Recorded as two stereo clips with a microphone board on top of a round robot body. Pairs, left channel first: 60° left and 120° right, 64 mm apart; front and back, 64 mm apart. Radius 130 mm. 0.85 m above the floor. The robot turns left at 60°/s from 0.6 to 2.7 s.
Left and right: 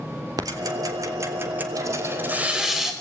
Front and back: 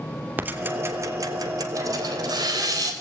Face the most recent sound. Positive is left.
turn(degrees=155)